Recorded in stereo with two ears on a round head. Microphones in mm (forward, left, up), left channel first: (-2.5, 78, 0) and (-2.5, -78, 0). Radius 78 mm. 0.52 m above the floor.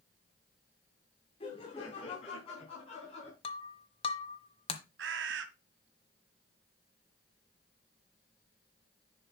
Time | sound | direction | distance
1.4 | laughter | 35° left (ahead or behind) | 4 m
3.4 | breaking glass | 30° left (ahead or behind) | 1.4 m
5.0 | a bird | 75° right (ahead or behind) | 1.5 m